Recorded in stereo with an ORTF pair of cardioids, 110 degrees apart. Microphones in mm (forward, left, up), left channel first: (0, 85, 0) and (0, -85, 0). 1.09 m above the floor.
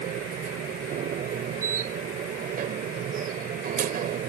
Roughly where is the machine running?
Ahead right.